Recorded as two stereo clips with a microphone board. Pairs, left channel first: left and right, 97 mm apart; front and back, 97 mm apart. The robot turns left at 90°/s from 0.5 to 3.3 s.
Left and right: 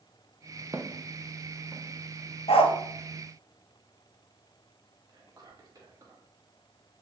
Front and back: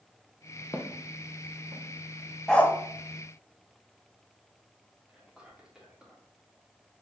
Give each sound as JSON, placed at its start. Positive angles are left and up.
{"t": 0.7, "sound": "footsteps", "azimuth_deg": -35, "distance_m": 0.7}
{"t": 2.5, "sound": "a dog barking", "azimuth_deg": 85, "distance_m": 0.5}
{"t": 5.1, "sound": "whispering", "azimuth_deg": -105, "distance_m": 1.4}